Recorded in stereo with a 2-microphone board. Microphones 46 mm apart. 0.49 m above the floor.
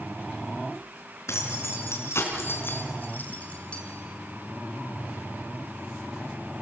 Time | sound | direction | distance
1.3 | keys jangling | 75° left (ahead or behind) | 4.5 m